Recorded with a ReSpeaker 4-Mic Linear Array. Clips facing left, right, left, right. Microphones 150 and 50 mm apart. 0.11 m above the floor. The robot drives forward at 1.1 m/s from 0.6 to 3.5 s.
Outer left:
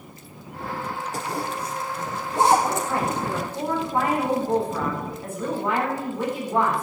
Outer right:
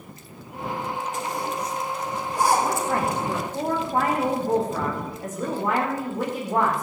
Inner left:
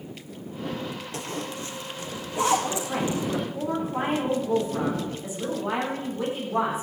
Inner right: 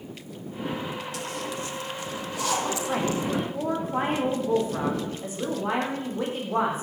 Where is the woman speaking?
50° right (ahead or behind), 6.5 m; by 6.8 s 45° right (ahead or behind), 7 m.